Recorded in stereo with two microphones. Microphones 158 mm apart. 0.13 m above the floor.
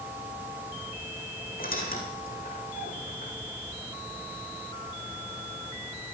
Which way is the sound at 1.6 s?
80° left.